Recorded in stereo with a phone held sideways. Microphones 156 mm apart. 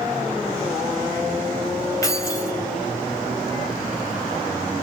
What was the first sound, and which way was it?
Keys jangling, 20° left (ahead or behind).